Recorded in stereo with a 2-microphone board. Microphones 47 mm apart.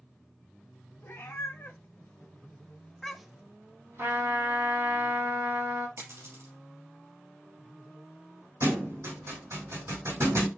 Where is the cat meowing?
70° left (ahead or behind), 1.3 m; by 3.5 s 20° right (ahead or behind), 0.6 m.